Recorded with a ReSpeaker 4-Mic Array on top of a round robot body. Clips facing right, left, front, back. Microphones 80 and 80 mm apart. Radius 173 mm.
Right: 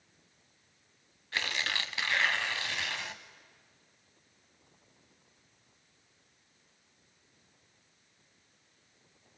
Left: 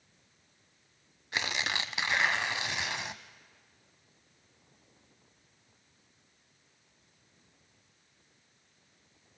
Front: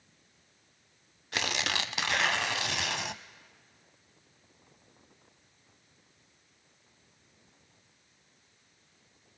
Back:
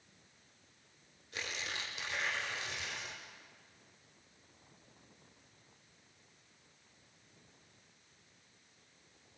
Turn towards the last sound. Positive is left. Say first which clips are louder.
# left 1 dB, front 10 dB
turn(degrees=15)